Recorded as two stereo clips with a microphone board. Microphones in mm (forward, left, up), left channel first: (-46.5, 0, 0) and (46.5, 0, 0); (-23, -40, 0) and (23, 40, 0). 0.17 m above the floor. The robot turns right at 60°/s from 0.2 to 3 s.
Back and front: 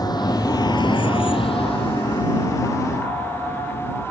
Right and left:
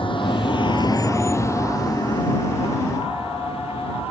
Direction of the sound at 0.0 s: 140° right.